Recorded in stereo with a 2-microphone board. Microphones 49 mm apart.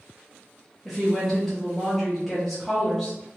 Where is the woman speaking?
5° left (ahead or behind), 0.8 m.